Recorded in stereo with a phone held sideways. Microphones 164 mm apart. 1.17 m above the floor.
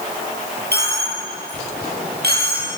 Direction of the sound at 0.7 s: 80° right.